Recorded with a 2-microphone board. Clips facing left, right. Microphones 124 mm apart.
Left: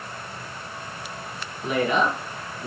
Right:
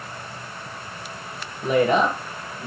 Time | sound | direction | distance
1.6 | a woman speaking | 45° right (ahead or behind) | 1.4 m